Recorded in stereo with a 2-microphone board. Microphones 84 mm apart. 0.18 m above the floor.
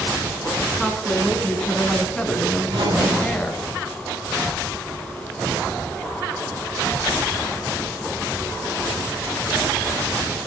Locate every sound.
0.8 s a woman speaking: centre (ahead or behind), 2.5 m; by 3.6 s 15° left (ahead or behind), 1.7 m
2.6 s a zipper: 75° right (ahead or behind), 6.5 m